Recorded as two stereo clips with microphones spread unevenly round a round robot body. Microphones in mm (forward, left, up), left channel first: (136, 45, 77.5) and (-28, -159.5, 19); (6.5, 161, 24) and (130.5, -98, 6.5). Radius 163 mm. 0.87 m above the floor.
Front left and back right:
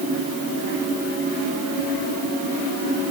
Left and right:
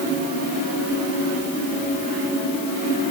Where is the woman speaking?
No woman speaking in this recording.